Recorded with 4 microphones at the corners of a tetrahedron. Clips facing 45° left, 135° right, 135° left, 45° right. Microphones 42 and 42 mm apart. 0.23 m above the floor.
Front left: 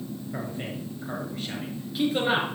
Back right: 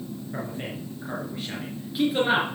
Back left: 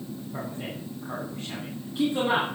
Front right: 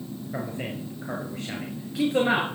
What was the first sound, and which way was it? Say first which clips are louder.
A man speaking: back right 1 dB, front right 4 dB; 50° right.